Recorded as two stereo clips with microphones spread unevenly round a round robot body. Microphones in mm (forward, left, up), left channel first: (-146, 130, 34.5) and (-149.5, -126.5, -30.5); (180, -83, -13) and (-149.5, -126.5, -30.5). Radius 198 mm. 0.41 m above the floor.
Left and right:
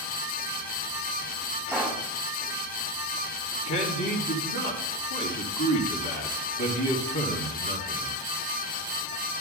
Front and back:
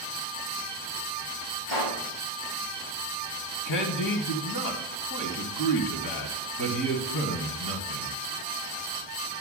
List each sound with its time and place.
1.7 s a pop: straight ahead, 6.5 m
3.6 s a man speaking: 50° left, 2 m